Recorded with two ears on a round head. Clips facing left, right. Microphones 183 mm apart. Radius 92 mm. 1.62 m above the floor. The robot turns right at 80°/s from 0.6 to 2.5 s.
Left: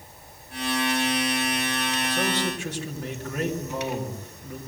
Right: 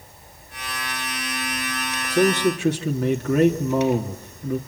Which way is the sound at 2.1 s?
155° right.